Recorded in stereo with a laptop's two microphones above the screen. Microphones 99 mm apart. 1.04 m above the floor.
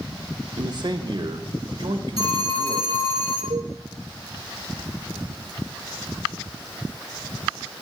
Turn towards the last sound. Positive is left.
turn(degrees=-65)  # may be behind; listen again after turning